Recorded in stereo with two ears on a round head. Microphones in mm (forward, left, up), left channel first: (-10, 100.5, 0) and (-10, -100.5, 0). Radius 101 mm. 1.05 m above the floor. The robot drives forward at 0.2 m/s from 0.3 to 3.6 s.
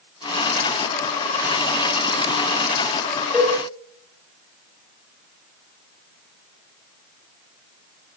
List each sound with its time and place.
3.3 s a cowbell: 5° right (ahead or behind), 1.2 m